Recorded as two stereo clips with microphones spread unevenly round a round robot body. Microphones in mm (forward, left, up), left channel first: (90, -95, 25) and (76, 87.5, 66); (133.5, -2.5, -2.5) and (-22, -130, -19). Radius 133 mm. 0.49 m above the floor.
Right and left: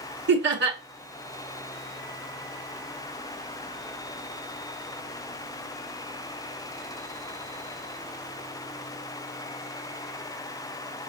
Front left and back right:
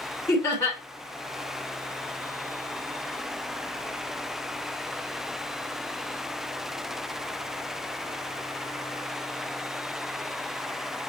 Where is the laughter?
120° left, 1.5 m.